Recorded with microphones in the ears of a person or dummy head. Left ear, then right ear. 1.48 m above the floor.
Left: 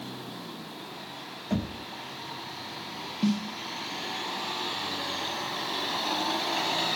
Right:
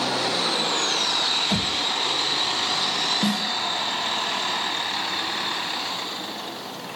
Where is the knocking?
65° right (ahead or behind), 3 m.